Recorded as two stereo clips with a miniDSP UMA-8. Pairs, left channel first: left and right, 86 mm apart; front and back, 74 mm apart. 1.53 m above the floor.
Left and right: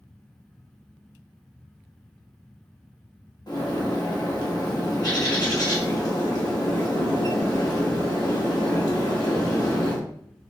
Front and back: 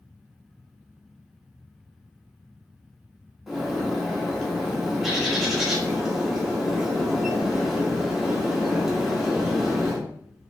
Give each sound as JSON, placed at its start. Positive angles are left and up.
{"t": 3.5, "sound": "a bird", "azimuth_deg": 95, "distance_m": 1.2}